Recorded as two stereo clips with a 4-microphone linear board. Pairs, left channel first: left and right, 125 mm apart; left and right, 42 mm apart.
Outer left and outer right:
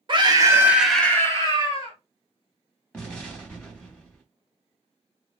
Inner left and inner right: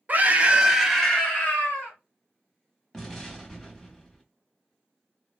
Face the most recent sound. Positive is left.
turn(degrees=10)  # may be behind; listen again after turning